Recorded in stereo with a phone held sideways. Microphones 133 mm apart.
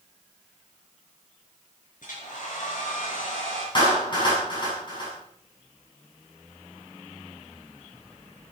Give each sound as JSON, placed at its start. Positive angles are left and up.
{"t": 2.0, "sound": "a hair dryer", "side_deg": 75, "distance_m": 6.5}
{"t": 3.8, "sound": "a clap", "side_deg": 35, "distance_m": 8.0}